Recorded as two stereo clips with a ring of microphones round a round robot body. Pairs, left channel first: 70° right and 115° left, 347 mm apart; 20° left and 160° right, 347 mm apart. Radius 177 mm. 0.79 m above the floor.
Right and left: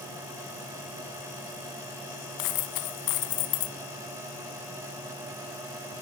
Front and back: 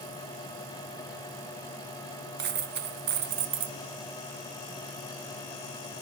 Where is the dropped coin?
95° right, 1.5 m.